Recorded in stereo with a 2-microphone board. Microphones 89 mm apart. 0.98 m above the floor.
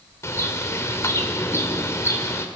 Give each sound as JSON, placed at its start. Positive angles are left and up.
{"t": 0.2, "sound": "a bird", "side_deg": 30, "distance_m": 2.5}